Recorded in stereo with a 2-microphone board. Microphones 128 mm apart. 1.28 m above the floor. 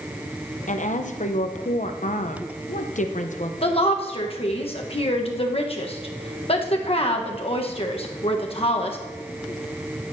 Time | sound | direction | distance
0.7 | a woman speaking | 75° left (ahead or behind) | 0.7 m
3.6 | a woman speaking | 50° left (ahead or behind) | 1.1 m